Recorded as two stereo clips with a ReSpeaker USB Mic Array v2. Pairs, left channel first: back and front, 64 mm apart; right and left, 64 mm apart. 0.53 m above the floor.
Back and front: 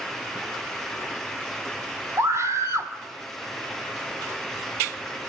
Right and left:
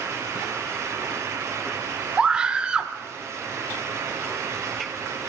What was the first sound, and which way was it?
A scream, 15° left.